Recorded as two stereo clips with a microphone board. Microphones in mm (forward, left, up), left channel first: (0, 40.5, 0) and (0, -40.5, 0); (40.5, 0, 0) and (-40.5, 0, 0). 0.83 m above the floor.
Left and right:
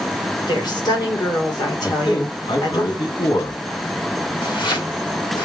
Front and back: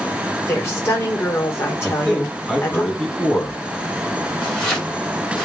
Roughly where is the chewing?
No chewing in this recording.